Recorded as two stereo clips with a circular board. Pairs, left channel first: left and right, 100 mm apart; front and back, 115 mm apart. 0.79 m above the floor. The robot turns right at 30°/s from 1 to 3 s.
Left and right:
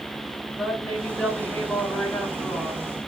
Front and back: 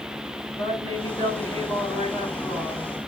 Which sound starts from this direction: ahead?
A woman speaking, at 0.5 s.